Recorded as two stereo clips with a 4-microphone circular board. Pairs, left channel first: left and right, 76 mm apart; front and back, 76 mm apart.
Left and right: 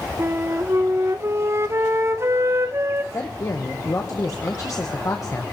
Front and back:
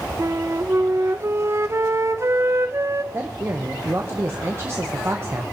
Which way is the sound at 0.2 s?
135° right.